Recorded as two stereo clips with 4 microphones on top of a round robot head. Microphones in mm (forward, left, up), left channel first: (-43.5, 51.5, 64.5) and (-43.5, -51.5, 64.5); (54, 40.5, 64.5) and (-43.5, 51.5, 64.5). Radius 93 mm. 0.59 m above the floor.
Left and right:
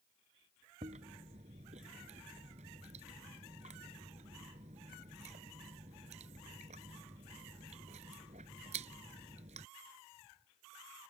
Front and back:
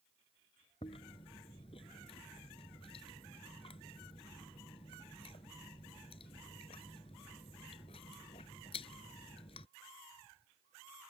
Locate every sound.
0.8 s chewing: 55° right